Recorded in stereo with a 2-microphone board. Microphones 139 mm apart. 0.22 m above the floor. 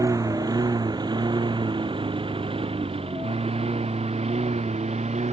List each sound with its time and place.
0.0 s a lawn mower: 25° right (ahead or behind); by 5.3 s 50° right (ahead or behind)